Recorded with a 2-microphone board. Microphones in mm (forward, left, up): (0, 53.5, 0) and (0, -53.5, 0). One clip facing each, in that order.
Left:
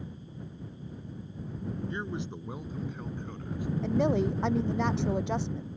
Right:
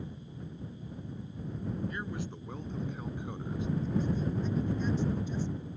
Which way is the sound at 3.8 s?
75° left (ahead or behind).